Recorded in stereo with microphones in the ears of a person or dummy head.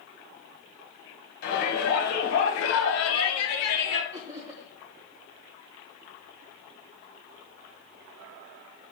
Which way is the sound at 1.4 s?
65° left (ahead or behind).